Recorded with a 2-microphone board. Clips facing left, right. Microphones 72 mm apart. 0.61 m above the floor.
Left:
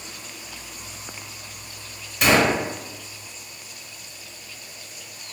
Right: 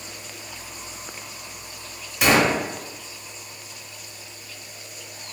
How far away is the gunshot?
About 0.6 m.